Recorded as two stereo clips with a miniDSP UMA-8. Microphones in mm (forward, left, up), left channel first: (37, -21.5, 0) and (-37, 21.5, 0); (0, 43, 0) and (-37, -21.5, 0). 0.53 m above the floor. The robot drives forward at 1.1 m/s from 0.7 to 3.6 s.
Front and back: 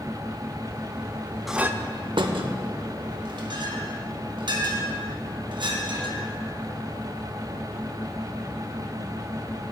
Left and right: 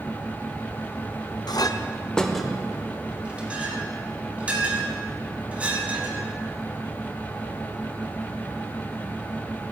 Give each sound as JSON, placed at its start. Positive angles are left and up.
{"t": 1.5, "sound": "a clink", "azimuth_deg": 60, "distance_m": 0.6}